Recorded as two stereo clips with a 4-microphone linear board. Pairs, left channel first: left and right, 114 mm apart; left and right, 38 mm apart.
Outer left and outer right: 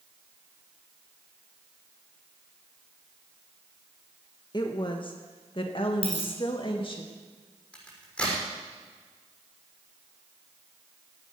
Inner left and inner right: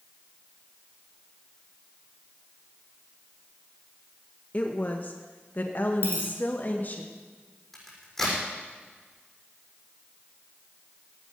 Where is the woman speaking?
40° left (ahead or behind), 1.0 m; by 7.0 s 45° left (ahead or behind), 1.8 m.